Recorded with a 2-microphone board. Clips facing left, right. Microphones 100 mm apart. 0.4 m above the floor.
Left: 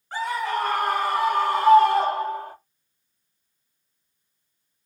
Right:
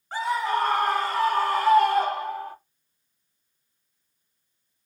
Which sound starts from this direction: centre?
A scream, at 0.1 s.